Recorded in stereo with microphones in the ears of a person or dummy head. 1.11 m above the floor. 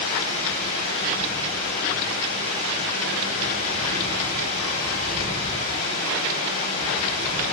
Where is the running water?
50° left (ahead or behind), 6.5 m.